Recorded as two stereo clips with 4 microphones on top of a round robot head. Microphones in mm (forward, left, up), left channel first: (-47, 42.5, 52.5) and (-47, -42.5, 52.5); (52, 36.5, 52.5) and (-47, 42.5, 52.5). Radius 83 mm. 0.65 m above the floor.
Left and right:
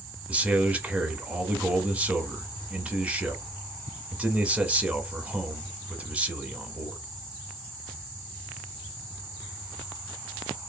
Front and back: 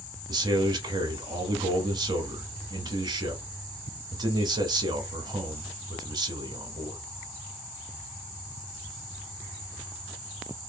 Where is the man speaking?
160° right, 0.9 m.